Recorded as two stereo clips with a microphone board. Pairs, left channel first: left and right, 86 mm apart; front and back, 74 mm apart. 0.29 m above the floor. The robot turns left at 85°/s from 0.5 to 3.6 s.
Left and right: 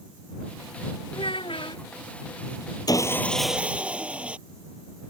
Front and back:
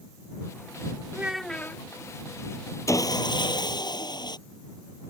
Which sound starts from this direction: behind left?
A child speaking, at 1.1 s.